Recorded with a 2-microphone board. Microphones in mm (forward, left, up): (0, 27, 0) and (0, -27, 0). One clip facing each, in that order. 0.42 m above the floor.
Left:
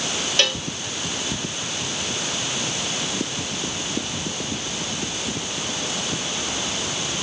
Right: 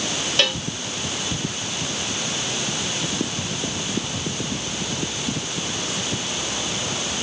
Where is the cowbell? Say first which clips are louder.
Right 1 dB; 5° right (ahead or behind).